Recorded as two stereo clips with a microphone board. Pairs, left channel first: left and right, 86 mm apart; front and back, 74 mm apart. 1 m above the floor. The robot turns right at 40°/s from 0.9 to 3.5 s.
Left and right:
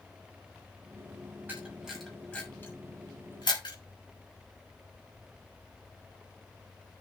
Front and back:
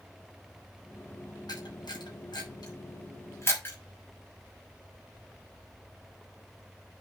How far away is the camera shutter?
About 6.5 m.